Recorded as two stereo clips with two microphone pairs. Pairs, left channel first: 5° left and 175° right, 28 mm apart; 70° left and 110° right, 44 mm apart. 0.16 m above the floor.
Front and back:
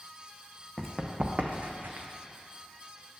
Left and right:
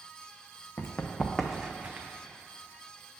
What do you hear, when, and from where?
0.8 s running footsteps: 105° left, 0.9 m; by 2.1 s 160° right, 1.0 m